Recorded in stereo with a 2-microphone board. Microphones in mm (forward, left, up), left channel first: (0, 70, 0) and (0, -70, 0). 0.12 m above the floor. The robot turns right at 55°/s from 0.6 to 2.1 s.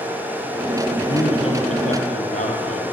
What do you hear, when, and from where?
1.0 s a man speaking: 30° left, 3.5 m; by 2.8 s 90° left, 3.5 m